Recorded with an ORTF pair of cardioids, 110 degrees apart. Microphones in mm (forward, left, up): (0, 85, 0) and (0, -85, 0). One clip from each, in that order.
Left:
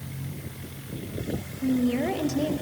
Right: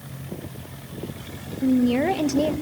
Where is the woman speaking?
40° right, 2.5 m.